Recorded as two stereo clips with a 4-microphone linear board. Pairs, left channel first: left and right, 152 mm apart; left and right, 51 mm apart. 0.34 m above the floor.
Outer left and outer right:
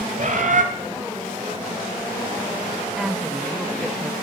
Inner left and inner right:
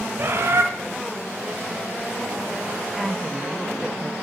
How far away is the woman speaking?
About 0.8 m.